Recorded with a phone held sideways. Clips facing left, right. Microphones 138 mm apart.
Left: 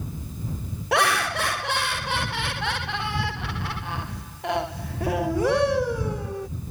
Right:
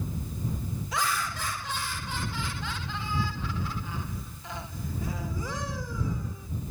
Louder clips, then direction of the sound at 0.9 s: Left 10 dB; 75° left (ahead or behind).